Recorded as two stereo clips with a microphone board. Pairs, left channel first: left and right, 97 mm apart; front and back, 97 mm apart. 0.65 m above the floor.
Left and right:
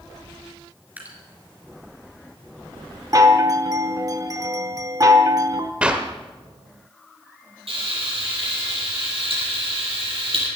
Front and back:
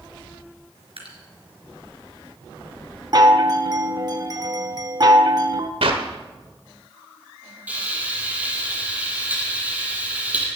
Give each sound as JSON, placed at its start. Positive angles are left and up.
{"t": 1.0, "sound": "dripping", "azimuth_deg": -160, "distance_m": 3.5}
{"t": 3.1, "sound": "a chime", "azimuth_deg": -140, "distance_m": 1.0}
{"t": 5.8, "sound": "a clap", "azimuth_deg": -165, "distance_m": 1.7}
{"t": 7.7, "sound": "frying", "azimuth_deg": -105, "distance_m": 6.5}